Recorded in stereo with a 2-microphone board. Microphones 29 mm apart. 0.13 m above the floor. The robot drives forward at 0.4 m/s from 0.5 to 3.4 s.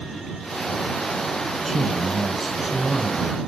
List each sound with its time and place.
1.6 s a man speaking: centre (ahead or behind), 1.8 m